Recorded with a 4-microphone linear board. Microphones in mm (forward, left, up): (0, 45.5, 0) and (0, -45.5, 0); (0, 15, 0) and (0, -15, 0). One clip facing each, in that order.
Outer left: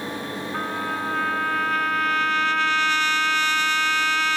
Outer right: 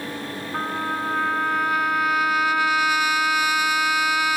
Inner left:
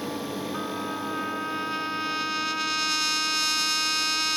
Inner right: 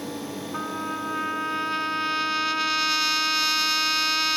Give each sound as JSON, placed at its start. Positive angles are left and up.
{"t": 0.5, "sound": "a trumpet", "side_deg": -10}